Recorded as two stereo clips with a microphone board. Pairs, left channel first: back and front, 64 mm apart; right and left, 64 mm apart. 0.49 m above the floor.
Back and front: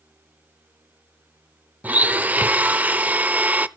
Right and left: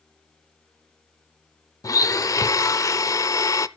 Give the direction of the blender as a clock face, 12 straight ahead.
2 o'clock.